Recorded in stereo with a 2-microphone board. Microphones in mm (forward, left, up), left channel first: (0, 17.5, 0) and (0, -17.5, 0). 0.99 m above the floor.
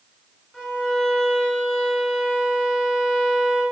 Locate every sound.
0.5 s a violin: 25° left (ahead or behind), 0.9 m